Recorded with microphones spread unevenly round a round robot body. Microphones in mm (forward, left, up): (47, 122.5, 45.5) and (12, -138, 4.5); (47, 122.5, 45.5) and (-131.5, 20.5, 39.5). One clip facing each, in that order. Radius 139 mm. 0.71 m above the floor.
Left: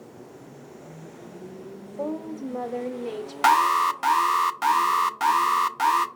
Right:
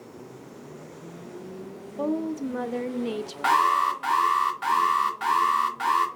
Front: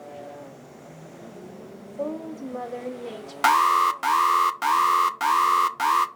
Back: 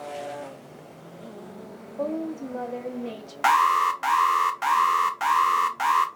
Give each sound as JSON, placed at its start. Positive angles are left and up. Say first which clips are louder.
{"t": 2.0, "sound": "a woman speaking", "louder": "right 4 dB, back 2 dB", "azimuth_deg": -60, "distance_m": 0.6}
{"t": 3.4, "sound": "an alarm", "louder": "left 2 dB, front 1 dB", "azimuth_deg": 70, "distance_m": 0.5}